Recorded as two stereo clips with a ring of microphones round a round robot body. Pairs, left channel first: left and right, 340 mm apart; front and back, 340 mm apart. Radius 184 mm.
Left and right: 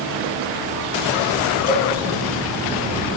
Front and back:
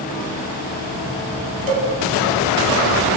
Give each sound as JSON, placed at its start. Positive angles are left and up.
{"t": 1.7, "sound": "a cowbell", "azimuth_deg": 155, "distance_m": 2.5}